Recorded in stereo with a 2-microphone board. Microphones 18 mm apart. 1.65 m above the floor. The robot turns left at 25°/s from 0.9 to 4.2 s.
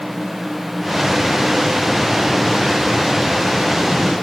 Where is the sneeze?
No sneeze in this recording.